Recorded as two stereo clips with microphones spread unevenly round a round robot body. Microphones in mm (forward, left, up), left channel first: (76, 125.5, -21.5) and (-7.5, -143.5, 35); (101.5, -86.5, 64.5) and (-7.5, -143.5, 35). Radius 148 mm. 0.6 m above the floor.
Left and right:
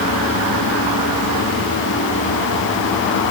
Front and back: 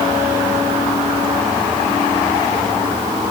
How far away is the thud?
I don't hear a thud.